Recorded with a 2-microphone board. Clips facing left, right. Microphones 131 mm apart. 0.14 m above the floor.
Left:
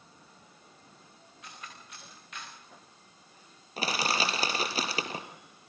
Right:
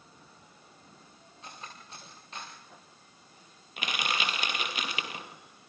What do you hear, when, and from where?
1.4 s cutlery clinking: 30° right (ahead or behind), 7 m
3.8 s crushing: 35° left (ahead or behind), 2.5 m